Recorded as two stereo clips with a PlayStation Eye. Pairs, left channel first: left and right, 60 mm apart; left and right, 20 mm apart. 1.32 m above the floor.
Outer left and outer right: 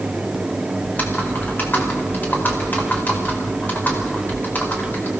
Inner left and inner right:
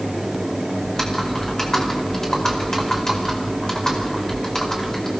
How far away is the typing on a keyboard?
About 4.5 m.